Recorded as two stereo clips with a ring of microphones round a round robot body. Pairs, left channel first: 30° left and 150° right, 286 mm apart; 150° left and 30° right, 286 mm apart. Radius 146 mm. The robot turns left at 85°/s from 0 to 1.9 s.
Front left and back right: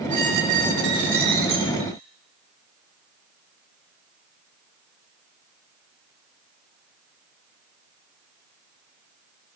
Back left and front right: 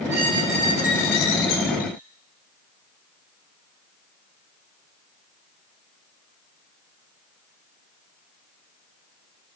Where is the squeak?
85° right, 3 m; by 1.9 s 125° left, 3 m.